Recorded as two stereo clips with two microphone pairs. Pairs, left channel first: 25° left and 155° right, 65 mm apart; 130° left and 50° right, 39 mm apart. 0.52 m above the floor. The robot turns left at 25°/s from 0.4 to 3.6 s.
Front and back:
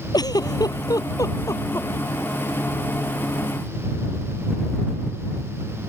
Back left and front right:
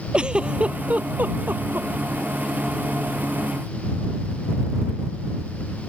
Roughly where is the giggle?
Ahead.